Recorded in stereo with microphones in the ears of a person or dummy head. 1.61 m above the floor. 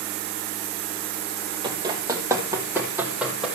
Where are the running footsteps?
25° right (ahead or behind), 2.5 m; by 3.5 s 5° right (ahead or behind), 3 m.